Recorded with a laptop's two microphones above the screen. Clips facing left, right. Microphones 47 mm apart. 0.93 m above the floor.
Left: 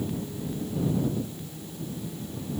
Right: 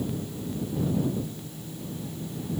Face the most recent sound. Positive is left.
No sound to turn to.